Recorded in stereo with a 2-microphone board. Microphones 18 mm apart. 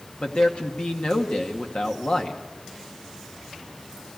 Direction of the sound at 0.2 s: 60° left (ahead or behind).